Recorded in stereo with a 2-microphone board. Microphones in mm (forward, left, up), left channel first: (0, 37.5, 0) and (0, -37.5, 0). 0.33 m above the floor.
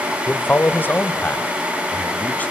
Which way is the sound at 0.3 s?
25° left (ahead or behind).